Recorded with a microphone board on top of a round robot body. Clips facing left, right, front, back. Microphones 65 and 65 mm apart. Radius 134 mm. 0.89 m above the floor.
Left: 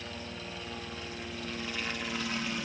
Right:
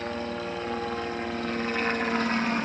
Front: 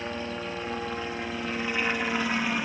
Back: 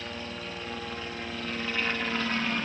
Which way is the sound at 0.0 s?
65° right.